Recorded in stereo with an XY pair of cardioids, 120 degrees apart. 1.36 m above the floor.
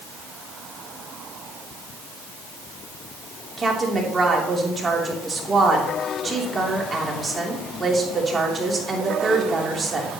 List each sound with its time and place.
3.6 s a woman speaking: 25° right, 3 m